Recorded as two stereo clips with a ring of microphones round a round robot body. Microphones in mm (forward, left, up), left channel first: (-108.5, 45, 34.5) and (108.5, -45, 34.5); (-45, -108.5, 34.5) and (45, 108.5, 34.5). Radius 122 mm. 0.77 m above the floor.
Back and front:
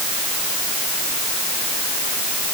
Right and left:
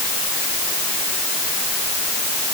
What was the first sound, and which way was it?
Only background noise.